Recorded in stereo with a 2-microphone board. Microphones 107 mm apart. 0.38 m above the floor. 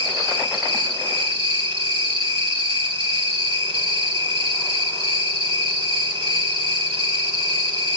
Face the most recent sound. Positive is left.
turn(degrees=-55)  # may be behind; listen again after turning